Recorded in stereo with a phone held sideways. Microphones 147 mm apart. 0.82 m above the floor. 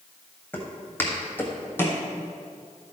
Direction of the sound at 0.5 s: 15° left (ahead or behind).